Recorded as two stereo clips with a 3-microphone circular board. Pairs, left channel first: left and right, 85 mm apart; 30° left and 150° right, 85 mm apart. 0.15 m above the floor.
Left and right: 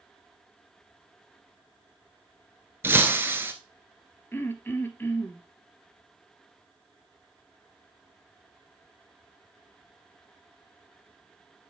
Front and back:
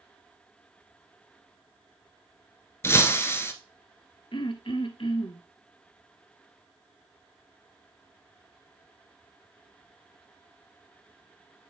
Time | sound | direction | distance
2.8 | breaking glass | 30° right | 1.0 m
4.3 | throat clearing | 25° left | 0.8 m